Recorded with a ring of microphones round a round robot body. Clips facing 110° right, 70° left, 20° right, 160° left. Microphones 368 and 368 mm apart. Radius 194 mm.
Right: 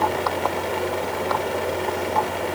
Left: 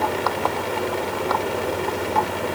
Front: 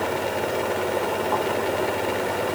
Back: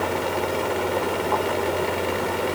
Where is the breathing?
I don't hear breathing.